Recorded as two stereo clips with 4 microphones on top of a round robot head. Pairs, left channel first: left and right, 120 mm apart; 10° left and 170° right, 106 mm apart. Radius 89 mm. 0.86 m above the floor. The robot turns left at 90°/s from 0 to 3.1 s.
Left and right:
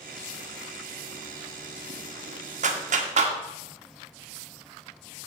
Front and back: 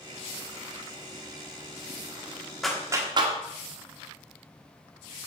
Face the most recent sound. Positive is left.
turn(degrees=-120)